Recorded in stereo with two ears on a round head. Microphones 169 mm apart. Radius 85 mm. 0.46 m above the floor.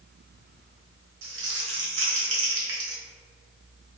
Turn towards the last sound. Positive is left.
turn(degrees=-70)  # may be behind; listen again after turning